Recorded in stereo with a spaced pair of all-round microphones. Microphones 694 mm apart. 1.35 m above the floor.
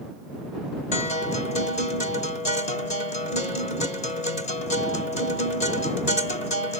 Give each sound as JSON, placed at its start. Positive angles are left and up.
{"t": 0.9, "sound": "a guitar", "side_deg": 70}